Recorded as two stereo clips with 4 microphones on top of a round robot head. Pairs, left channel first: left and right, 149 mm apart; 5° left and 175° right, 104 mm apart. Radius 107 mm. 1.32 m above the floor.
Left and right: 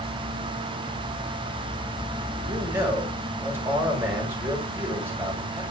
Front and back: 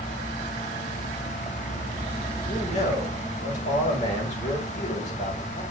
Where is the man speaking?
15° right, 6.5 m.